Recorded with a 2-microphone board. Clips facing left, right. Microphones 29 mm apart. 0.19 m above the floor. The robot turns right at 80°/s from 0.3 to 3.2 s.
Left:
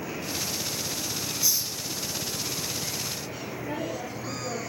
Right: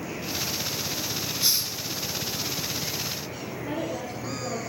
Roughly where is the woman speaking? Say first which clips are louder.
Right 2 dB; right.